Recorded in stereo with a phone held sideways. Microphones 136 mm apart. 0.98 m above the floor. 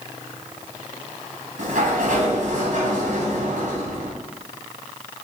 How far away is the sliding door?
About 2.5 m.